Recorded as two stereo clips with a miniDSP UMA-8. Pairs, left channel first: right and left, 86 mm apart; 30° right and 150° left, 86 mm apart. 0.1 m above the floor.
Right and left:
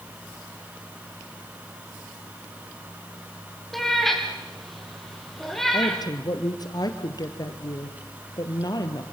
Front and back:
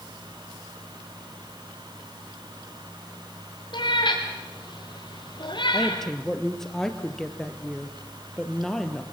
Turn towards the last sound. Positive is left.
turn(degrees=-115)